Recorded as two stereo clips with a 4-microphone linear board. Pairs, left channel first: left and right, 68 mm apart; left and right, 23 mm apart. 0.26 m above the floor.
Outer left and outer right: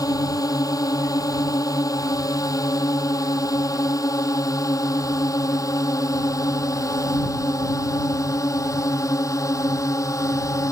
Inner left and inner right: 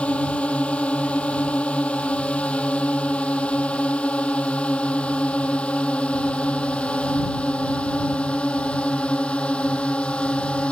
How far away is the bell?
No bell in this recording.